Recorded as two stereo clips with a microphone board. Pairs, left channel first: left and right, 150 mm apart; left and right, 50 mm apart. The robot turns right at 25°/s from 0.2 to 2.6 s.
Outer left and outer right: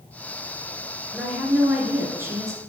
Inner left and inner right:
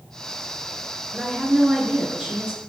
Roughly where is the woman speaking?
Behind.